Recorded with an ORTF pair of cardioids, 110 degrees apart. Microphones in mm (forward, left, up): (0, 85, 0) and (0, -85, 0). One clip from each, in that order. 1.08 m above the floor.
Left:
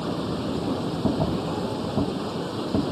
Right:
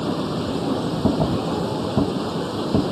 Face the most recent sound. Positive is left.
turn(degrees=-25)